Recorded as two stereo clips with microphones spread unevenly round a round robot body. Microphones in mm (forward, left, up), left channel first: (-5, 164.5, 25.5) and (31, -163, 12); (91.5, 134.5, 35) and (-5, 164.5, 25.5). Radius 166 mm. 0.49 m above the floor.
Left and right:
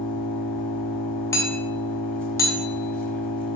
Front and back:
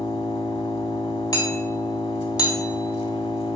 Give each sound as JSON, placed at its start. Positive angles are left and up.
{"t": 0.0, "sound": "an engine running", "azimuth_deg": 10, "distance_m": 1.2}
{"t": 1.3, "sound": "hammering", "azimuth_deg": 15, "distance_m": 1.2}